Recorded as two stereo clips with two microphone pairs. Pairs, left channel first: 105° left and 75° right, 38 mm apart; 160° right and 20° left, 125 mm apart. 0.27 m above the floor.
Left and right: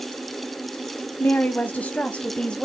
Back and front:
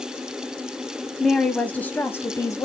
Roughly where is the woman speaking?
Behind left.